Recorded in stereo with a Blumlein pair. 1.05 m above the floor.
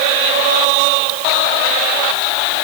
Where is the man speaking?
I don't hear a man speaking.